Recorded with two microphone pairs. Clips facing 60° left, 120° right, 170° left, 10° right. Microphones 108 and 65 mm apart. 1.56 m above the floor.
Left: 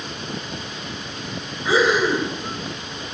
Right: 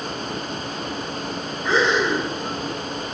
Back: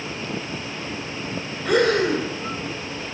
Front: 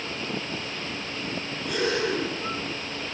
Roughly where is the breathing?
Behind left.